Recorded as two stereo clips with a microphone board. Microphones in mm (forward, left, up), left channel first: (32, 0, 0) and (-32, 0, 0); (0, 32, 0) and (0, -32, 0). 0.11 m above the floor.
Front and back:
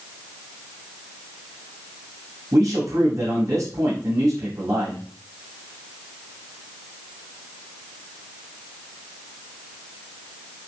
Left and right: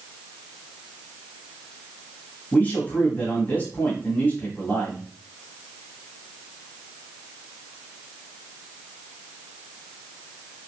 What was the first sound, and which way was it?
A man speaking, 155° left.